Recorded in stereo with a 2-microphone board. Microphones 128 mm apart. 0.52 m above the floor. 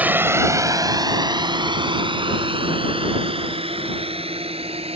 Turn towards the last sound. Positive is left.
turn(degrees=-50)  # may be behind; listen again after turning